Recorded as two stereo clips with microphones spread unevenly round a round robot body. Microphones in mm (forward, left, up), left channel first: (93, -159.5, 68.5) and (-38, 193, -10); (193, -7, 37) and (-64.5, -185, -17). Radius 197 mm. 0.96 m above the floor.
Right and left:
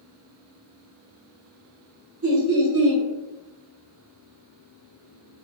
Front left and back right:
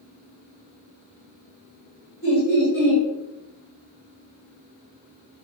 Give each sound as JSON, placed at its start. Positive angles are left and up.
{"t": 2.2, "sound": "laughter", "azimuth_deg": 70, "distance_m": 1.3}